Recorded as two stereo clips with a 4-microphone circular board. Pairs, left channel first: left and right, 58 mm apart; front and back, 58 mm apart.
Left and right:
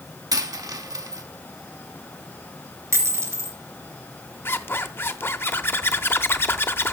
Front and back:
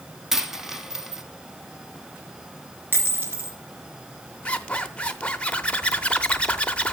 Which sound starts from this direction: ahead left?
A zipper, at 4.5 s.